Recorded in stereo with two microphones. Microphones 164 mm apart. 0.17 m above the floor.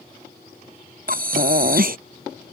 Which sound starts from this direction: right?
Breathing, at 1.1 s.